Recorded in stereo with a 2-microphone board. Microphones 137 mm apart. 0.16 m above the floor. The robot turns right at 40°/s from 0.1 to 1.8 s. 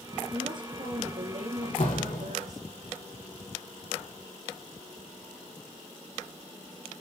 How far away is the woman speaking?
About 4 m.